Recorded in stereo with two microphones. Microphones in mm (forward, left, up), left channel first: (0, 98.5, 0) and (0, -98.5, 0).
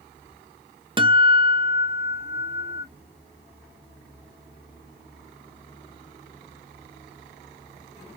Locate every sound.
1.0 s a guitar: 25° right (ahead or behind), 0.5 m